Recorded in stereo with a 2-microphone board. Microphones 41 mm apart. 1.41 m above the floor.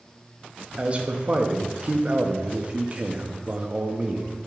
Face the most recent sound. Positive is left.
turn(degrees=-35)  # may be behind; listen again after turning